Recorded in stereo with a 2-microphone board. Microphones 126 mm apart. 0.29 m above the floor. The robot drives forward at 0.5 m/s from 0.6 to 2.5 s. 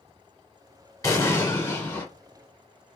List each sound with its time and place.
1.0 s an explosion: 25° left (ahead or behind), 0.8 m; by 2.1 s 15° left (ahead or behind), 1.2 m